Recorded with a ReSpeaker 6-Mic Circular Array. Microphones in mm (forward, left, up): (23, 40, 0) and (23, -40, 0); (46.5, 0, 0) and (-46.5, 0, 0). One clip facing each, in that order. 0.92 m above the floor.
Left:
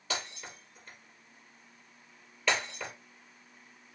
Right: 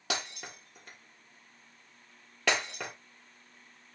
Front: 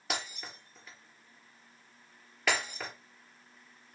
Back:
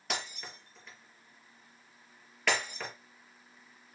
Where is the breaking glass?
85° right, 4 m.